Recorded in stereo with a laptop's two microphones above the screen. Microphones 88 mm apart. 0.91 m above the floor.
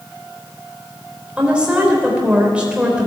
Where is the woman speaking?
10° right (ahead or behind), 3.5 m.